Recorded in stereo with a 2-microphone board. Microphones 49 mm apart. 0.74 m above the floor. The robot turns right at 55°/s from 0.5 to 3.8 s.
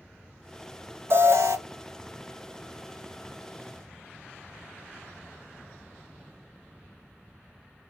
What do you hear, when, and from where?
1.1 s an alarm: 55° right (ahead or behind), 0.8 m; by 1.6 s 70° right (ahead or behind), 0.8 m